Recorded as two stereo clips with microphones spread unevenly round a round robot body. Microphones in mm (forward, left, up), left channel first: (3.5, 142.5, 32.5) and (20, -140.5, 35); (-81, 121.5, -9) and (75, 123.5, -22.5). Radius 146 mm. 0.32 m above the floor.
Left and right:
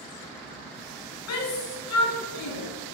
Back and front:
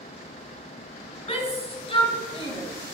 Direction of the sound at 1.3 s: 130° left.